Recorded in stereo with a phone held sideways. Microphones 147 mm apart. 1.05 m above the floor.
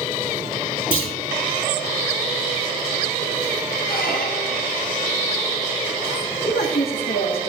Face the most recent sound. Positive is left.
turn(degrees=80)